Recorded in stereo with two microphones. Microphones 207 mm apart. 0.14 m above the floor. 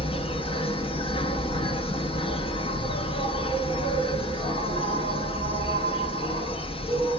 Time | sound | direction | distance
0.0 | an insect | 25° left (ahead or behind) | 0.7 m